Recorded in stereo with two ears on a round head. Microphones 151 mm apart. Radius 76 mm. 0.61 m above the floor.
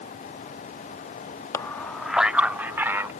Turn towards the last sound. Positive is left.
turn(degrees=-15)  # may be behind; listen again after turning